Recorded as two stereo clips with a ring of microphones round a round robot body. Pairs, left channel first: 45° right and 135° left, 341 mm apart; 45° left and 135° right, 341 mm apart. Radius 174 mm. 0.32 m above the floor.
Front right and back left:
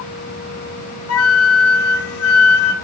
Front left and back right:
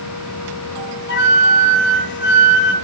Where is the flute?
5° right, 1.3 m.